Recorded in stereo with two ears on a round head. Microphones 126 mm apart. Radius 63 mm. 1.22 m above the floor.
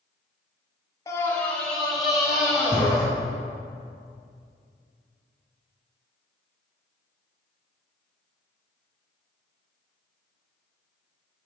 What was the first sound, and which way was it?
A scream, 20° left (ahead or behind).